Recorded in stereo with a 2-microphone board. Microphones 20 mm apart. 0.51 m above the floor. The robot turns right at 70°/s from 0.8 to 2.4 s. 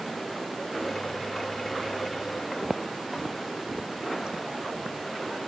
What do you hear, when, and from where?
2.6 s footsteps: 25° right (ahead or behind), 0.8 m; by 5.4 s 40° right (ahead or behind), 2 m